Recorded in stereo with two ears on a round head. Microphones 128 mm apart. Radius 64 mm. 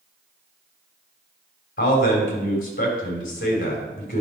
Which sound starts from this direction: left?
A man speaking, at 1.8 s.